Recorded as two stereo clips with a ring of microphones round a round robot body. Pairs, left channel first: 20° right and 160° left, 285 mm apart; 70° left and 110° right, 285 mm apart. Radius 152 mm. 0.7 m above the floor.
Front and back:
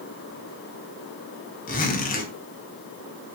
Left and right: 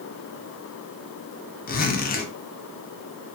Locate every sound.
1.7 s a zipper: 25° left, 1.0 m